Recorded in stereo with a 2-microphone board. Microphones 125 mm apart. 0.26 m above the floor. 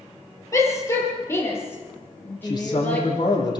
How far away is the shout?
About 7 m.